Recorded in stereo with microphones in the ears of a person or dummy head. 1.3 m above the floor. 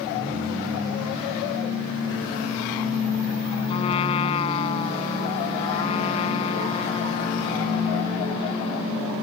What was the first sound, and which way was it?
A trumpet, 30° left (ahead or behind).